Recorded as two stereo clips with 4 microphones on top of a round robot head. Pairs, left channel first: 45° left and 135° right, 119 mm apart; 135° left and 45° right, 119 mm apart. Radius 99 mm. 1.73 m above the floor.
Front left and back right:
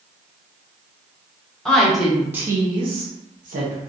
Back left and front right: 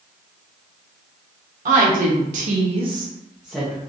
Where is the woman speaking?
40° right, 1.3 m; by 3.8 s 145° right, 0.9 m.